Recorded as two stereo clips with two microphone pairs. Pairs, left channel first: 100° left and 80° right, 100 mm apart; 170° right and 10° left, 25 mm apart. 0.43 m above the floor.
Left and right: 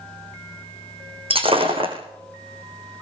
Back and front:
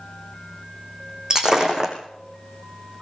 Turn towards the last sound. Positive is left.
turn(degrees=-55)